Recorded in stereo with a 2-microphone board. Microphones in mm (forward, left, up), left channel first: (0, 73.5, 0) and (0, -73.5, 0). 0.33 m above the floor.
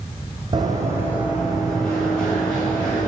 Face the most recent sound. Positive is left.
turn(degrees=15)  # may be behind; listen again after turning